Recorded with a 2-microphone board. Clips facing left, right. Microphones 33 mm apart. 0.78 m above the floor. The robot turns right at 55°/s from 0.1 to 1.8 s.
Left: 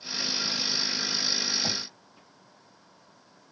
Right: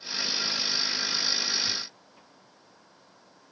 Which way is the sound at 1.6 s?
85° left.